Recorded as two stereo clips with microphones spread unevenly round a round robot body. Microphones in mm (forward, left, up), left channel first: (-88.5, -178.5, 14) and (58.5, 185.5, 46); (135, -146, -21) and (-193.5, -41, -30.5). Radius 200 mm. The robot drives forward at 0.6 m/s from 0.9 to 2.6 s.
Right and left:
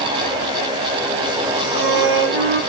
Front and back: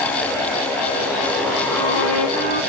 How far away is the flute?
About 1.6 m.